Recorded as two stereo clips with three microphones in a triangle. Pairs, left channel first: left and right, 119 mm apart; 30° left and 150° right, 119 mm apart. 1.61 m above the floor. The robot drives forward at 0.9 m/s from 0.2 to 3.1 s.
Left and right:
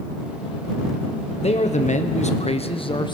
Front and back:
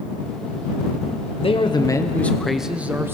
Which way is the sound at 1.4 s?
65° left.